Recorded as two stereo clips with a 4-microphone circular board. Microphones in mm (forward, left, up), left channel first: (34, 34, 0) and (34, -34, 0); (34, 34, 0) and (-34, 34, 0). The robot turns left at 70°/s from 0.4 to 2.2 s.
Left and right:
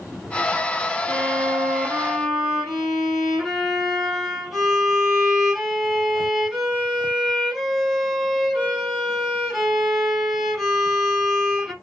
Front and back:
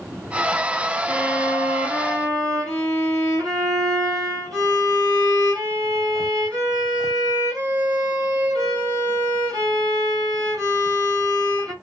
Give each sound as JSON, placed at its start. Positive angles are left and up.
{"t": 1.1, "sound": "a violin", "azimuth_deg": -90, "distance_m": 3.0}